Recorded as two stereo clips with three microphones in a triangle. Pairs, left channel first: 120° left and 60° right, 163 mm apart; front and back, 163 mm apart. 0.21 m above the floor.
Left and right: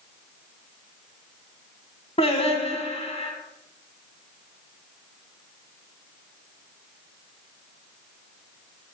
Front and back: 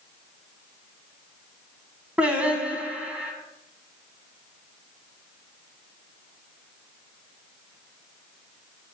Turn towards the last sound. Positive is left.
turn(degrees=100)